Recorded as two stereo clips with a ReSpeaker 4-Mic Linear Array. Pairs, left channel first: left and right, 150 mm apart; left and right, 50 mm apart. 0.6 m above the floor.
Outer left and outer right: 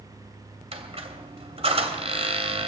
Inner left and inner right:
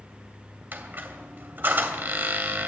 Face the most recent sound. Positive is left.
turn(degrees=-40)  # may be behind; listen again after turning